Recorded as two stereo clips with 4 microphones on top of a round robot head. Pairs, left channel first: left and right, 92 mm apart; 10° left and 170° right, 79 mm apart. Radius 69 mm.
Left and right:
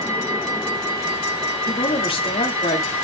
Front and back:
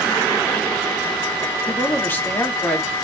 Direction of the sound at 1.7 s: 75° left.